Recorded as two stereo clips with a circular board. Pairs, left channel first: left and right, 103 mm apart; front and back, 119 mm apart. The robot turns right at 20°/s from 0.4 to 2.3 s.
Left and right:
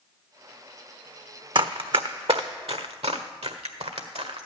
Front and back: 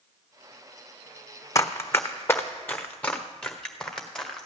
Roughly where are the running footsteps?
Ahead right.